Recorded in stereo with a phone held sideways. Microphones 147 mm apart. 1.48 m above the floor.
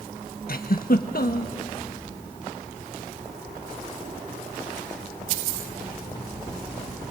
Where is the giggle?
70° left (ahead or behind), 1.3 m.